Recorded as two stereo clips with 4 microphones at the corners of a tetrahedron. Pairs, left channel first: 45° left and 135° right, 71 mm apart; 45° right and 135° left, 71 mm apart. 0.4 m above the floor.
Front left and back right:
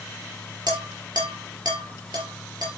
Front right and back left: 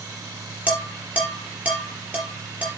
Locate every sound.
0.7 s dishes clattering: 160° right, 5.5 m